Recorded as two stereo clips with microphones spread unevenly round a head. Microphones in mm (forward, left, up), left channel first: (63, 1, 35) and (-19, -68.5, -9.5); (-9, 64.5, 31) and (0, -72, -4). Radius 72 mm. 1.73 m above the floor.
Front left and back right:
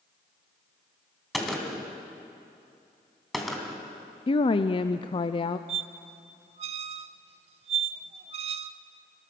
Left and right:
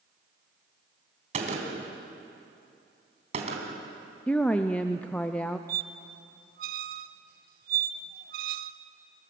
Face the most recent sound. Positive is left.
turn(degrees=-105)